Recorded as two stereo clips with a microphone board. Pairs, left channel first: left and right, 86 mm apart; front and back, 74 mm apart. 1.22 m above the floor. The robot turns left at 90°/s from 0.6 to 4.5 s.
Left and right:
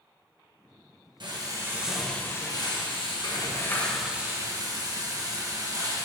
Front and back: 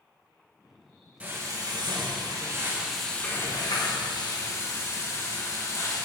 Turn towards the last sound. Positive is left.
turn(degrees=-45)